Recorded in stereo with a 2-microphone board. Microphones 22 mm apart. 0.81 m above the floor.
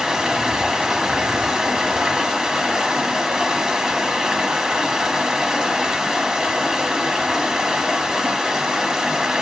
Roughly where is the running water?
Right.